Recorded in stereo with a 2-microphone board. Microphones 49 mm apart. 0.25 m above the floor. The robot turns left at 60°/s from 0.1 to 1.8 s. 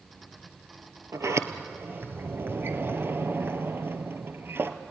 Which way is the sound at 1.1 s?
85° right.